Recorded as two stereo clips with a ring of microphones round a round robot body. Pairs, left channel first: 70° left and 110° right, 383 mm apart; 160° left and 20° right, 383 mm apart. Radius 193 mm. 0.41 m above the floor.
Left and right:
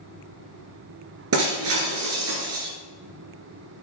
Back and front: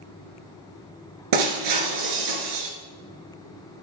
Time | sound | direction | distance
1.3 | breaking glass | 60° right | 3 m